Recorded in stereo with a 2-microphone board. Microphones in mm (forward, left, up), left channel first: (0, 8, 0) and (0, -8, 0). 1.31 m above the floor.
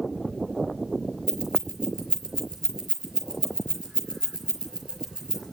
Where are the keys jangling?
50° right (ahead or behind), 5.5 m.